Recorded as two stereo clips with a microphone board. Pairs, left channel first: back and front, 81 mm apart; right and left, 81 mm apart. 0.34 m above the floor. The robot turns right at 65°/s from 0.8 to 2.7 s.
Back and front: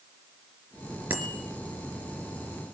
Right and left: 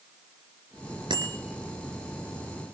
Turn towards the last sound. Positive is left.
turn(degrees=170)